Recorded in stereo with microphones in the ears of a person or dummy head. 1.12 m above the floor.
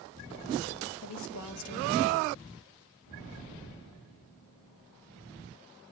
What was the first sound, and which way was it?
A woman speaking, 75° left (ahead or behind).